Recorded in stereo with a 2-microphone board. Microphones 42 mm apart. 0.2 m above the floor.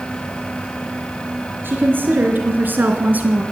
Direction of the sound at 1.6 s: 55° right (ahead or behind).